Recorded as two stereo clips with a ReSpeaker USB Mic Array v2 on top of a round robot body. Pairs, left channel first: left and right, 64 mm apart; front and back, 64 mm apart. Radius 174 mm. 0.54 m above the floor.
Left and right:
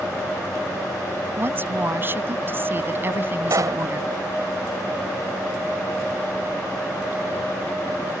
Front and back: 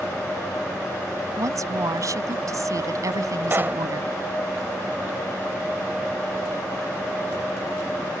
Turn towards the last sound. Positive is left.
turn(degrees=-120)